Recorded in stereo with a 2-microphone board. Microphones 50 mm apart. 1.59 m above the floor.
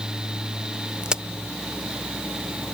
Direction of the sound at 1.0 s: 20° right (ahead or behind).